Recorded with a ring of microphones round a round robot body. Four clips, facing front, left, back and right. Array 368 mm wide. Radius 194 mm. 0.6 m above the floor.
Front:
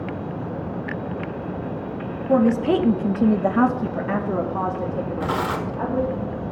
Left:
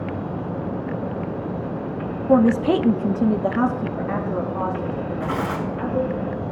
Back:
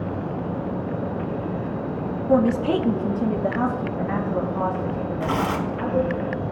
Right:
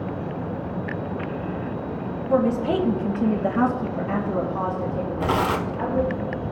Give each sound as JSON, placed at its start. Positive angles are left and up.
{"t": 2.3, "sound": "a woman speaking", "azimuth_deg": 90, "distance_m": 1.1}
{"t": 5.2, "sound": "tearing paper", "azimuth_deg": -85, "distance_m": 1.2}